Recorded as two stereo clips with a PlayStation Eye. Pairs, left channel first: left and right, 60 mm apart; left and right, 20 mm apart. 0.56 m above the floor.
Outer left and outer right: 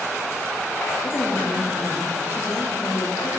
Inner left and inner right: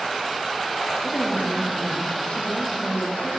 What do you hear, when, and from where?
1.0 s a woman speaking: 80° left, 7 m